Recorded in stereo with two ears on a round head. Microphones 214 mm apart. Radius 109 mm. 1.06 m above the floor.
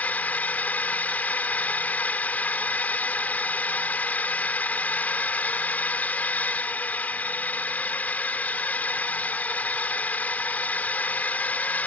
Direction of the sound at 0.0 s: 5° left (ahead or behind).